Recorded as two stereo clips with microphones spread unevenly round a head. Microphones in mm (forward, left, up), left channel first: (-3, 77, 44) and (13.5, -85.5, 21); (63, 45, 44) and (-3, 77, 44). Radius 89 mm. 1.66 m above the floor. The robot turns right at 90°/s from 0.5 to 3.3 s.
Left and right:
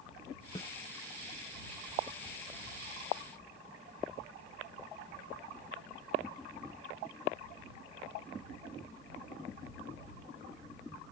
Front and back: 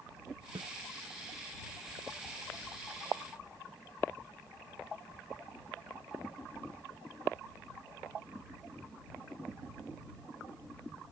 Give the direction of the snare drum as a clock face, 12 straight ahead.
7 o'clock.